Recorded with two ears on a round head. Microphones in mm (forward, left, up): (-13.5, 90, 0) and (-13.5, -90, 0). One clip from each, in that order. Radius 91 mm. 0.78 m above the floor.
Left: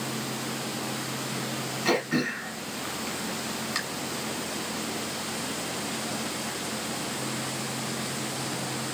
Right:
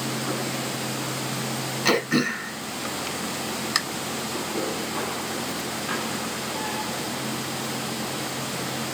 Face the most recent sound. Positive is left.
turn(degrees=-30)  # may be behind; listen again after turning